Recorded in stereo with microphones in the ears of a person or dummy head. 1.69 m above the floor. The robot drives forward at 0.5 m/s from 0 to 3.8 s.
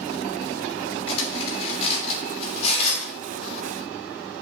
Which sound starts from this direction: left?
Cutlery clinking, at 1.1 s.